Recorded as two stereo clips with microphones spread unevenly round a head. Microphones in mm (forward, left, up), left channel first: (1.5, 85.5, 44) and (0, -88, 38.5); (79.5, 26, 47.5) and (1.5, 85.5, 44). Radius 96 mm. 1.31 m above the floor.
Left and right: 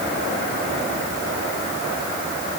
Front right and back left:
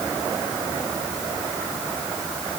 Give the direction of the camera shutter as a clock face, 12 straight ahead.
I don't hear a camera shutter.